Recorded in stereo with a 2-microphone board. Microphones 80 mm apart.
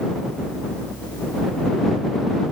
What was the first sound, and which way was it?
Only background noise.